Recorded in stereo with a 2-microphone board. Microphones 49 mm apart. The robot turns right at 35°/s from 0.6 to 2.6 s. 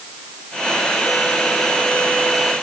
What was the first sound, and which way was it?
Only background noise.